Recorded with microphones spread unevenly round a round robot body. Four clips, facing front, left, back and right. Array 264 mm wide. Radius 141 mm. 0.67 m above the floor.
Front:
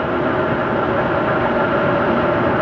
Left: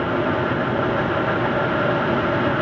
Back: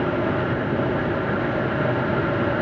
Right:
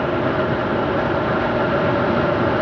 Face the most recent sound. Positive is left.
No sound to turn to.